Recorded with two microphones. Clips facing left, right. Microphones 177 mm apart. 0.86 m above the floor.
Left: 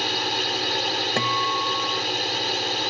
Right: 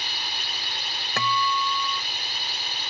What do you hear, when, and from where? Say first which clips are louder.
0.0 s a drone: left 12 dB; 75° left (ahead or behind)
1.2 s a guitar: right 4 dB; 30° left (ahead or behind)